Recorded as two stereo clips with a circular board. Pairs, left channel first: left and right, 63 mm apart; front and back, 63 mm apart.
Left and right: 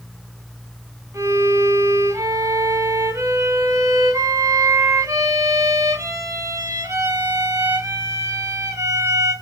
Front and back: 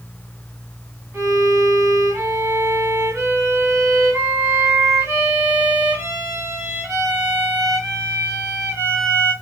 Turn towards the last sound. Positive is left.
turn(degrees=-125)